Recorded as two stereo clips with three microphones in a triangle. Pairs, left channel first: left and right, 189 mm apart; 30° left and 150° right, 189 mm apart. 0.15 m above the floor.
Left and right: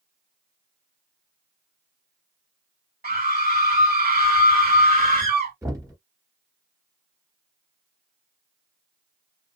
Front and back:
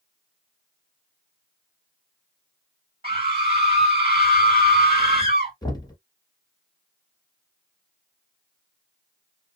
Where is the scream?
115° right, 2 m.